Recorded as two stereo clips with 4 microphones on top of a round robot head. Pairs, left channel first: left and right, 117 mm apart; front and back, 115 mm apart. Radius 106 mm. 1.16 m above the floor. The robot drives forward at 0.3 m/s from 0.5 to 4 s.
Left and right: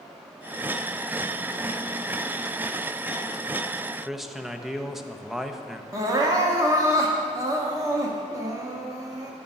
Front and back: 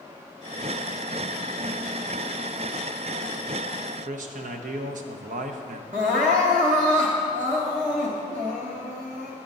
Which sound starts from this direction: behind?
A man speaking, at 4.0 s.